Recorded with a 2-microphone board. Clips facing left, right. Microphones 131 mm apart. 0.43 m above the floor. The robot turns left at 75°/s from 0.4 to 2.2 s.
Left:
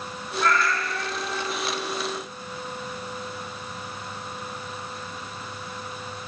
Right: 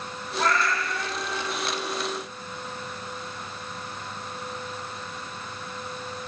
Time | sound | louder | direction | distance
0.4 | a cat meowing | left 1 dB | 95° right | 3.5 m